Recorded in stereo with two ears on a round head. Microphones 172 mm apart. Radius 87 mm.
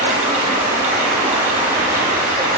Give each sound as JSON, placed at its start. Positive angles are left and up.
{"t": 0.0, "sound": "running water", "side_deg": -15, "distance_m": 3.5}